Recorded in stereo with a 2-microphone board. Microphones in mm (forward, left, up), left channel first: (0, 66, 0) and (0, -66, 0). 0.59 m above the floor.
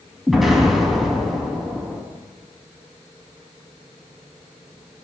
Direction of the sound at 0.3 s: Centre (ahead or behind).